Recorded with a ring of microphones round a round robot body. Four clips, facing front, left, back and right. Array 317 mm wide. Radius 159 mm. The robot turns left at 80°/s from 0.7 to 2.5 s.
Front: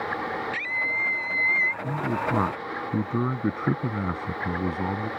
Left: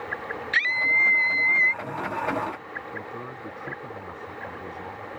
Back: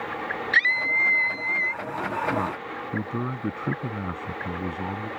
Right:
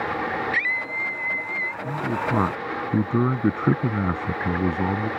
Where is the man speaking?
25° right; by 5.1 s 80° right.